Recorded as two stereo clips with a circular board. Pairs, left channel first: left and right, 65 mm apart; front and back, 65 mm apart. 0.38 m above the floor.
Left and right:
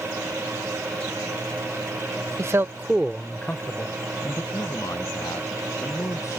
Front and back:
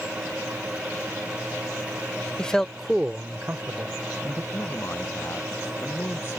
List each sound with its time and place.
2.4 s a man speaking: 70° right; by 4.4 s 135° left
4.5 s a man speaking: 50° left